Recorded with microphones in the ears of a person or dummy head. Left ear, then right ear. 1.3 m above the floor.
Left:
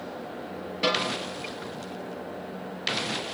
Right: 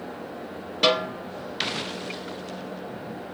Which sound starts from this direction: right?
A snare drum, at 0.8 s.